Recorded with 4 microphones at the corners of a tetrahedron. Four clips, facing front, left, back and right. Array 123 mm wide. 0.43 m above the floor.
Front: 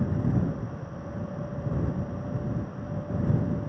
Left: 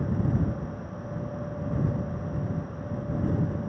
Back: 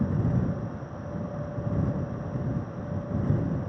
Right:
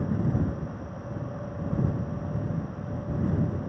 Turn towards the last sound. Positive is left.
No sound to turn to.